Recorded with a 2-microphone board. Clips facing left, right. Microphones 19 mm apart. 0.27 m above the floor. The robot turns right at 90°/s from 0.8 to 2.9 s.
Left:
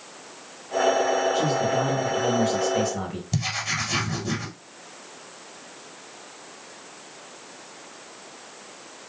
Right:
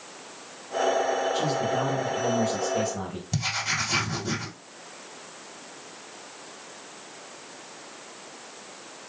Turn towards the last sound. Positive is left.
turn(degrees=5)  # may be behind; listen again after turning